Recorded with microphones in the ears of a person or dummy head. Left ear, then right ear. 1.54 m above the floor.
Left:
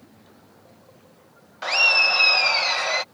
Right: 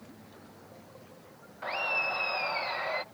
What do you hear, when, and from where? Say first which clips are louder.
1.6 s laughter: left 13 dB; 75° left (ahead or behind)